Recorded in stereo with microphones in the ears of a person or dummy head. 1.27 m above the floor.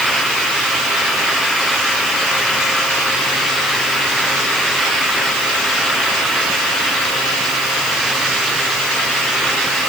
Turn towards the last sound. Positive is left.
No sound to turn to.